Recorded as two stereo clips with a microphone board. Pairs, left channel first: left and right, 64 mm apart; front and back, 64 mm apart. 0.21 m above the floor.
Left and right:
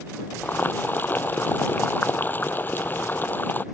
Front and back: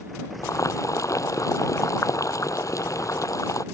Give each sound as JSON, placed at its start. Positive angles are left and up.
{"t": 0.4, "sound": "boiling", "azimuth_deg": 30}